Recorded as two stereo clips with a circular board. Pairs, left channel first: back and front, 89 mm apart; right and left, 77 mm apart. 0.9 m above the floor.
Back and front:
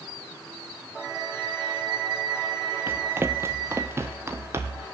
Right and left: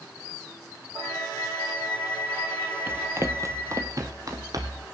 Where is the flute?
30° left, 3.5 m.